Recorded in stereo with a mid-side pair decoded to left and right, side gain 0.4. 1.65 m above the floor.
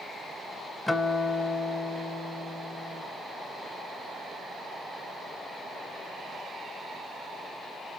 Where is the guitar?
25° left, 1.3 m.